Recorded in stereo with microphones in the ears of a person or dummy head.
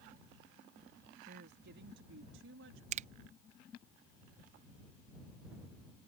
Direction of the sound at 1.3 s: 55° right (ahead or behind).